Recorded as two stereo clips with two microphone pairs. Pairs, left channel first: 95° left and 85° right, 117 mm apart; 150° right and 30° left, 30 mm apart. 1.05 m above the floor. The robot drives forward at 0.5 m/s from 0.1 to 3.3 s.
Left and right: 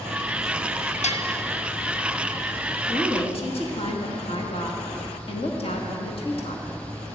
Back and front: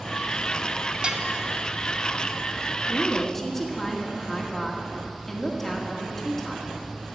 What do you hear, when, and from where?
1.0 s a bell: 85° left, 0.6 m; by 1.2 s 95° left, 0.6 m
2.9 s a woman speaking: 125° left, 1.4 m; by 6.6 s 130° left, 1.5 m